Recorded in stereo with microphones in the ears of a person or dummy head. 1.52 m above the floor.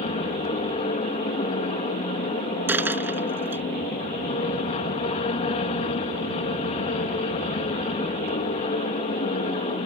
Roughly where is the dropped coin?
Centre.